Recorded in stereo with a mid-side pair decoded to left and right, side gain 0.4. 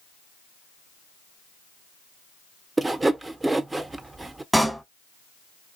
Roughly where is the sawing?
Ahead right.